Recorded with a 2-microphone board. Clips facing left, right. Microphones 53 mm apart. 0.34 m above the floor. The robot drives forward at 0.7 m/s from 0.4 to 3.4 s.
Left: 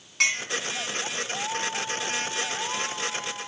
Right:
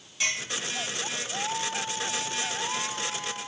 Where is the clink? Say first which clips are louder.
Left 5 dB; 70° left (ahead or behind), 1.6 m.